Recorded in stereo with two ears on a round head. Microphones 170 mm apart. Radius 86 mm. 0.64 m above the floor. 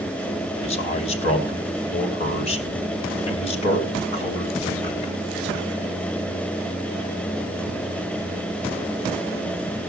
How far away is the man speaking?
About 2.5 m.